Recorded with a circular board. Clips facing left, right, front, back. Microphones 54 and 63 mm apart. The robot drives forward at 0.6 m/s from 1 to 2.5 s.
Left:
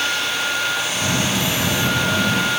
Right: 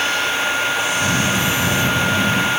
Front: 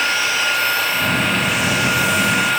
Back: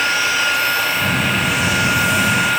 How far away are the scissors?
I don't hear scissors.